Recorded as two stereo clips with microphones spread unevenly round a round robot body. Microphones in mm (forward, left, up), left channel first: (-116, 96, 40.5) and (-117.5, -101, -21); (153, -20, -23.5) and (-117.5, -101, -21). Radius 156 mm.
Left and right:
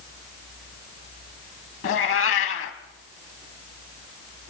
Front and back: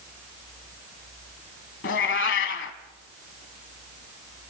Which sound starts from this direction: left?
A cat meowing, at 1.8 s.